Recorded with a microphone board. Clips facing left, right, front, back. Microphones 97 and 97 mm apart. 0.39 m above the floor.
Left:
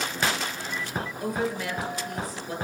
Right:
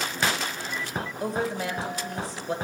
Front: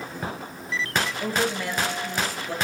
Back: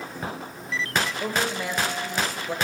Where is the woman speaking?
125° right, 1.4 m.